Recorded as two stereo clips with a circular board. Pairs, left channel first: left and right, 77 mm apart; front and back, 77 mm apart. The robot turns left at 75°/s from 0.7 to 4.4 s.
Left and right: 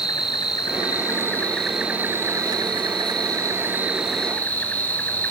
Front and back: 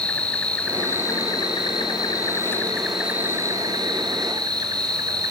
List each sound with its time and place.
0.0 s an insect: 75° left, 3 m; by 5.3 s 155° left, 3 m